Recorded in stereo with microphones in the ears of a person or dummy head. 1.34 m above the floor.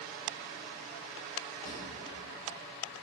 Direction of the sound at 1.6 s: 20° left (ahead or behind).